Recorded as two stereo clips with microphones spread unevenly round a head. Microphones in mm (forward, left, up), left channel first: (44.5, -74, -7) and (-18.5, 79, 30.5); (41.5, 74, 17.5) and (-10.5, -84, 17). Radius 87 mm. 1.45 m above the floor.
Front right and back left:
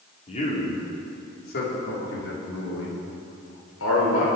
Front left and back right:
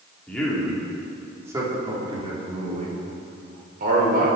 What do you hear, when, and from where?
0.3 s a man speaking: 10° right, 3.5 m; by 4.3 s 70° right, 5 m